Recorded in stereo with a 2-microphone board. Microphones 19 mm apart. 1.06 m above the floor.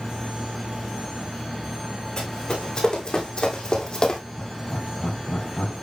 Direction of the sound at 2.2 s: 45° left (ahead or behind).